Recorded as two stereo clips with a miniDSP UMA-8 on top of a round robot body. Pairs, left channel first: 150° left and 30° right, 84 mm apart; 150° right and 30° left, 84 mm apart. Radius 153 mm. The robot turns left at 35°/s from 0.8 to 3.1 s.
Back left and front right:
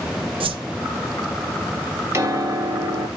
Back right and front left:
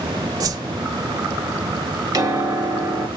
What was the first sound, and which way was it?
A whoosh, 15° right.